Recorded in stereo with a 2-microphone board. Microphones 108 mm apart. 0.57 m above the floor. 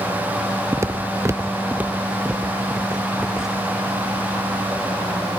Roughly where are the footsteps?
Right.